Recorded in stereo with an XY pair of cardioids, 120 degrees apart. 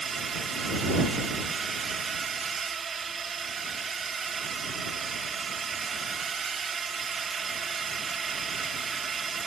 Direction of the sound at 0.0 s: 35° right.